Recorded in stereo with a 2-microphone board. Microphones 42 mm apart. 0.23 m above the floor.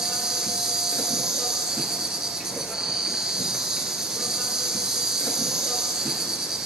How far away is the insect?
About 0.7 m.